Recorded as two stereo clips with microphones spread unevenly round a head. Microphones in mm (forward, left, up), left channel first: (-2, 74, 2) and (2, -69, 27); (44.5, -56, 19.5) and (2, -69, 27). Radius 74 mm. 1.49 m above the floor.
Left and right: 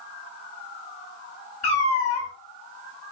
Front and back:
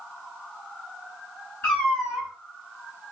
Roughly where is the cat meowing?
Ahead left.